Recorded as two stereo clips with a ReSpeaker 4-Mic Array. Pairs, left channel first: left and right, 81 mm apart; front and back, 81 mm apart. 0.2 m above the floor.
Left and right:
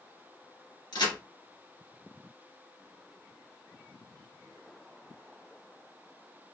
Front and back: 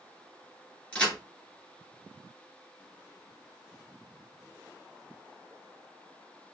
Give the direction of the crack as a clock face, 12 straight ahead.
9 o'clock.